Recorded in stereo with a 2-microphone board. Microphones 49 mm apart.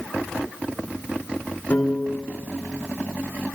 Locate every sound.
1.7 s a piano: 30° left (ahead or behind), 2.0 m